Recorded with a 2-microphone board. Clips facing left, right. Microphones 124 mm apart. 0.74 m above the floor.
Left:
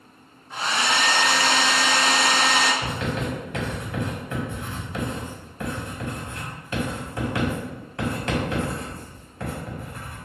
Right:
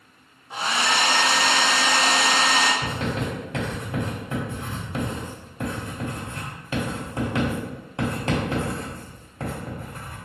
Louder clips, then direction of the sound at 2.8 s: Even; 25° right (ahead or behind).